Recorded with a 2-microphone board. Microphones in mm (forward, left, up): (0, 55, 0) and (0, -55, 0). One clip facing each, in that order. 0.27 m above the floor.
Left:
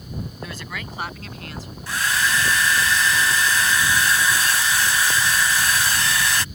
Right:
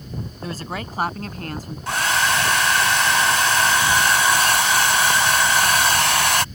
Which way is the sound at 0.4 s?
35° right (ahead or behind).